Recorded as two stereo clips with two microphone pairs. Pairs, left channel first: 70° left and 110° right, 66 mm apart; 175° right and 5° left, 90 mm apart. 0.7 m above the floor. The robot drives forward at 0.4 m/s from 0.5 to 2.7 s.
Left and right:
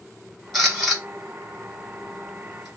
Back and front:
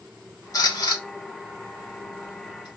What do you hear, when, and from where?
0.5 s a camera shutter: 155° left, 1.1 m; by 2.7 s 165° left, 1.9 m